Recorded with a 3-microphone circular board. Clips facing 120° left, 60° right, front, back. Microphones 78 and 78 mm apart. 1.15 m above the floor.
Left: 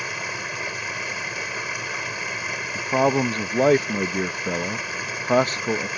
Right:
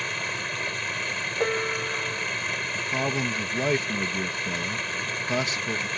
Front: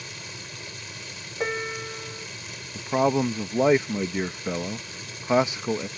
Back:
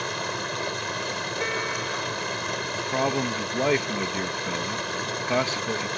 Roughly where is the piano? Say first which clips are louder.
Right 4 dB, front 2 dB; right.